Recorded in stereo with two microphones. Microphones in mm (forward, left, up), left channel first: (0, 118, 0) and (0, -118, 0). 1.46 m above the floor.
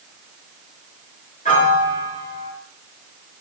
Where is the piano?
30° left (ahead or behind), 1.4 m.